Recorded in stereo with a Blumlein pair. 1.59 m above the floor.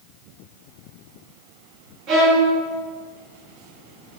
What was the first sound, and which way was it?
A violin, 40° right.